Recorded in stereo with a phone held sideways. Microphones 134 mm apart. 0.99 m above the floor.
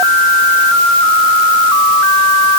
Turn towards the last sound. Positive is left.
No sound to turn to.